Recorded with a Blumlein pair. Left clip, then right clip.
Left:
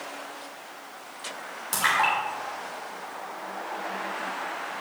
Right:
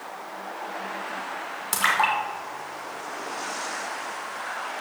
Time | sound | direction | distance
1.7 | a splash | 15° right | 2 m